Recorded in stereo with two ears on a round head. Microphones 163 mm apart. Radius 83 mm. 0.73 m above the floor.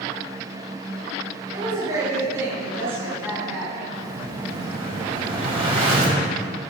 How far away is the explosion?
About 5 m.